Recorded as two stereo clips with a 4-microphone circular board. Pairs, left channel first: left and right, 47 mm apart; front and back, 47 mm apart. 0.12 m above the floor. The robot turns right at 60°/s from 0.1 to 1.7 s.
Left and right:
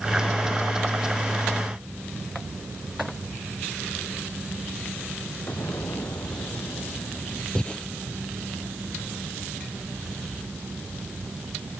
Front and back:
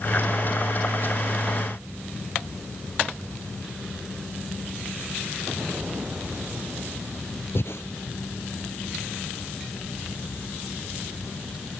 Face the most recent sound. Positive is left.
turn(degrees=20)